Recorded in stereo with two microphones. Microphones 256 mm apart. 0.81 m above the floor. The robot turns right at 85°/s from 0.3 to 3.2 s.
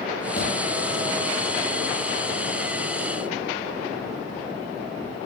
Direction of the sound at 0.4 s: 60° left (ahead or behind).